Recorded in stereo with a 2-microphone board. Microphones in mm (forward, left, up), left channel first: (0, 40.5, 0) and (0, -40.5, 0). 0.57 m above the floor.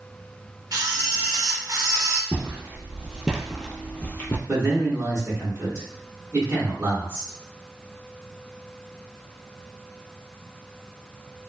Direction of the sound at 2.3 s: 25° right (ahead or behind).